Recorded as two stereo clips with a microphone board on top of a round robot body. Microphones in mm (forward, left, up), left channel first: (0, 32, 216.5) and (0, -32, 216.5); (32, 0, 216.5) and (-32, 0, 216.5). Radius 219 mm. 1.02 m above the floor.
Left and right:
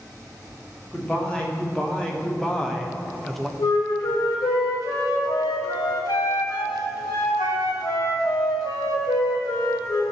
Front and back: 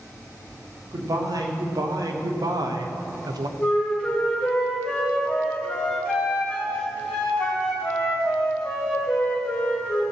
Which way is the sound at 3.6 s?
75° left.